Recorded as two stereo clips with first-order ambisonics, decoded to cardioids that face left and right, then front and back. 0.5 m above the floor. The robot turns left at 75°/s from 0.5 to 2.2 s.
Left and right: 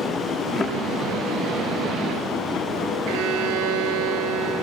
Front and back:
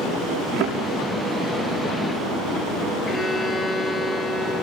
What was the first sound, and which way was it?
A thud, 155° left.